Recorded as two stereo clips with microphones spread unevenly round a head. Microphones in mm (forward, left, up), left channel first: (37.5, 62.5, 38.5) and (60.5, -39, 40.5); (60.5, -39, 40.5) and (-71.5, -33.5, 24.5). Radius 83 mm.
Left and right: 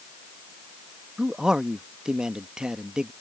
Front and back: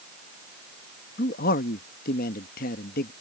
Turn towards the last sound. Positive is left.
turn(degrees=5)